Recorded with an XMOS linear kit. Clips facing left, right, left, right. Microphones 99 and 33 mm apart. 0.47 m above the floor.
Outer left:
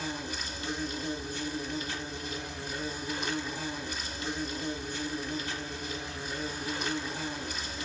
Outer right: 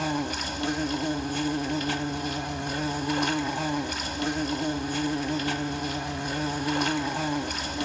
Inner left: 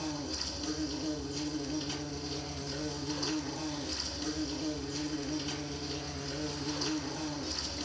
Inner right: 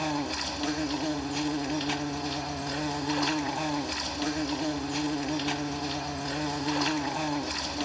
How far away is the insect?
About 1.1 m.